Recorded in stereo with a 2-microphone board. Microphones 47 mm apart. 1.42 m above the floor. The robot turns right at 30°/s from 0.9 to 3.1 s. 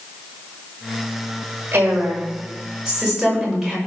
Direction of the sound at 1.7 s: 45° right.